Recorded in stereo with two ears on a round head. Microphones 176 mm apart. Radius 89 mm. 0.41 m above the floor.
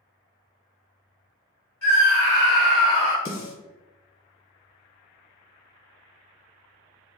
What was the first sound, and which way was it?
A scream, 10° left (ahead or behind).